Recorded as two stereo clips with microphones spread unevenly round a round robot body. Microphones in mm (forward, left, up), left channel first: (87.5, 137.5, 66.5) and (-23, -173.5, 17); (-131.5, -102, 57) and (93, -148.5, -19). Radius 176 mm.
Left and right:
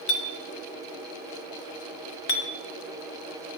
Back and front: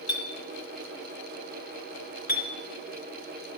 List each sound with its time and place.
0.1 s a clink: 90° left, 1.5 m